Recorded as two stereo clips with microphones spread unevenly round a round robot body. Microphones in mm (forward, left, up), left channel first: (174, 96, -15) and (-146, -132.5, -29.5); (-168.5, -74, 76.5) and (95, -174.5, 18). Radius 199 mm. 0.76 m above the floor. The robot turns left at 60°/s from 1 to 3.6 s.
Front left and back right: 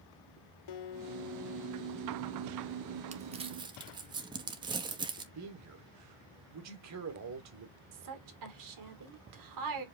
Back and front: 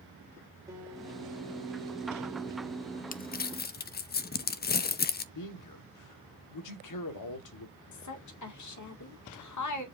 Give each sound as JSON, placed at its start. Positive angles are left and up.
{"t": 0.7, "sound": "a guitar", "azimuth_deg": 65, "distance_m": 1.0}
{"t": 3.1, "sound": "crumpling", "azimuth_deg": -165, "distance_m": 0.7}
{"t": 5.3, "sound": "a man speaking", "azimuth_deg": 165, "distance_m": 1.7}
{"t": 7.9, "sound": "a woman speaking", "azimuth_deg": 175, "distance_m": 2.0}